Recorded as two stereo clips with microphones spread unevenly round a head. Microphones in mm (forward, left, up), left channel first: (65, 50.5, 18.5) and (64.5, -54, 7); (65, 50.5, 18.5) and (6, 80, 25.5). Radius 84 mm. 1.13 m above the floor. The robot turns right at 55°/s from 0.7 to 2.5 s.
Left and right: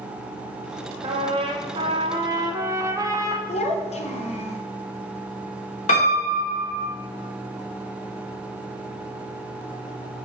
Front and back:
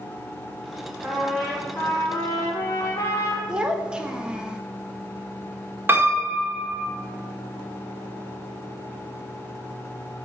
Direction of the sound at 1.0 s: 125° right.